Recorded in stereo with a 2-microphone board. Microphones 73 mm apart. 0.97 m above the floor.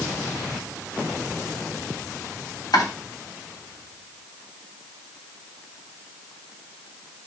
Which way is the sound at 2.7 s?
65° left (ahead or behind).